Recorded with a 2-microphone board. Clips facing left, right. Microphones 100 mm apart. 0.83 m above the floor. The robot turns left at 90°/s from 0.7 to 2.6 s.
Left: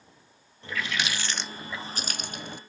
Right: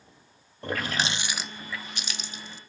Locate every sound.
0.6 s a running tap: 115° right; by 2.6 s 75° left